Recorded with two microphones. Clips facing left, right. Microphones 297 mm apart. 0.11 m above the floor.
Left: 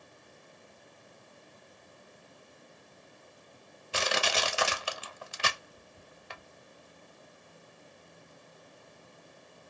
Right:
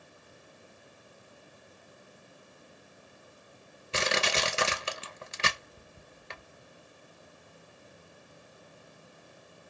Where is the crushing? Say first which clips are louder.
Right 1 dB; 25° right (ahead or behind), 0.5 m.